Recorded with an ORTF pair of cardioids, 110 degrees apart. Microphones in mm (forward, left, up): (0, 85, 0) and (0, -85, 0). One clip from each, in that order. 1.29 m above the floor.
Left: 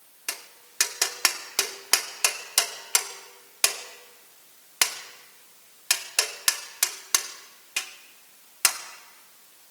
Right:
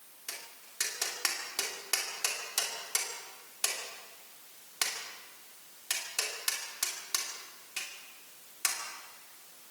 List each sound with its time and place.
0.3 s tapping: 55° left, 2 m